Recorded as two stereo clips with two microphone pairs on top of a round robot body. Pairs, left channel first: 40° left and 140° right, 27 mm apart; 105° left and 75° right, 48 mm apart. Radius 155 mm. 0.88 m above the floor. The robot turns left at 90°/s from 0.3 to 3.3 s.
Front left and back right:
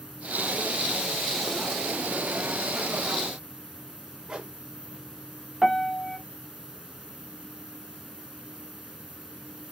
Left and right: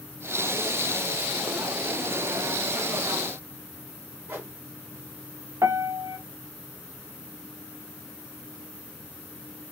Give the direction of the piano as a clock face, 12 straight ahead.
2 o'clock.